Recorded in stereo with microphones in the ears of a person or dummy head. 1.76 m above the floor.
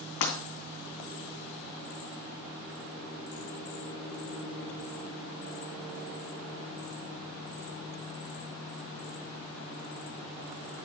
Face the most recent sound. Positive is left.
turn(degrees=55)  # may be behind; listen again after turning